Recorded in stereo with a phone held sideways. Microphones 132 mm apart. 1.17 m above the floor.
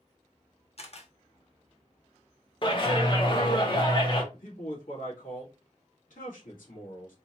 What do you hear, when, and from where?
0.8 s a camera shutter: 50° left (ahead or behind), 1.0 m
2.6 s a clap: 40° left (ahead or behind), 1.3 m
4.3 s a man speaking: 90° left, 2 m